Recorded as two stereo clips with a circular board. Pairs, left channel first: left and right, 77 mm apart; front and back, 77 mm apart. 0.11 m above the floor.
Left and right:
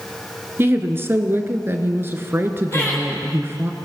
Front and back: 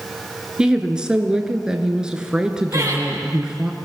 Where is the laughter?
140° left, 3.5 m.